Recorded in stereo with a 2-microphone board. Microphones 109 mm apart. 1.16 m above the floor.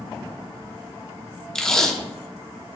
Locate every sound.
1.6 s tape being pulled: 5° left (ahead or behind), 1.2 m